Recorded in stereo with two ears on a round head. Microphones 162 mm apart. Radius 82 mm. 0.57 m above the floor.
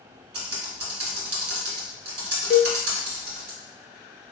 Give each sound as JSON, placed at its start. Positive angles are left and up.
{"t": 0.3, "sound": "typing on a keyboard", "side_deg": -65, "distance_m": 1.4}
{"t": 2.5, "sound": "a cowbell", "side_deg": 50, "distance_m": 0.6}